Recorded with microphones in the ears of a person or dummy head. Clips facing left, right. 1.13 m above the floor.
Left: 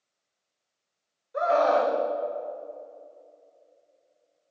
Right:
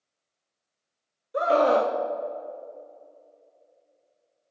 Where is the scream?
45° right (ahead or behind), 0.8 m.